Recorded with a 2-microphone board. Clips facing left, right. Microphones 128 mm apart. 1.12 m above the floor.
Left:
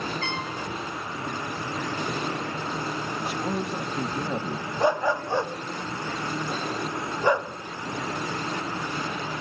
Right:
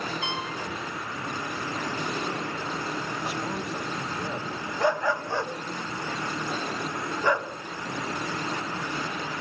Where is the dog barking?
20° left (ahead or behind), 0.7 m.